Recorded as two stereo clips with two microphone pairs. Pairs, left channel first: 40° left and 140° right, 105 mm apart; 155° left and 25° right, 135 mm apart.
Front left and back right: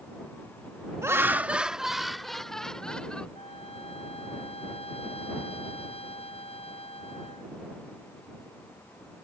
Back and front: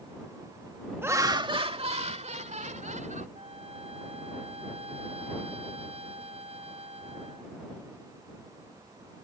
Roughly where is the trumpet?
Ahead.